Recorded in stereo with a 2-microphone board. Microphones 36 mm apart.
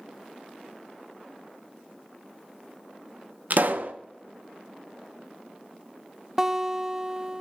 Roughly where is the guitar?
Centre.